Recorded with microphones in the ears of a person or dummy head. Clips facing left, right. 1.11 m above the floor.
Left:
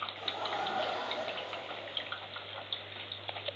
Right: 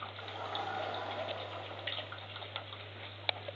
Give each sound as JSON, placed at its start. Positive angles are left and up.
{"t": 0.2, "sound": "laughter", "side_deg": 65, "distance_m": 1.3}